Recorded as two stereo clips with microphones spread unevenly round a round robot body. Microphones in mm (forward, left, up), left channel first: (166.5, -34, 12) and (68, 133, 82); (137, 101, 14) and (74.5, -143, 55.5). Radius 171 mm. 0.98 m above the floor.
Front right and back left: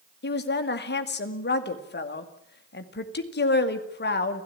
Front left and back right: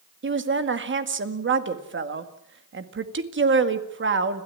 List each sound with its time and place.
0.2 s a woman speaking: 60° right, 2 m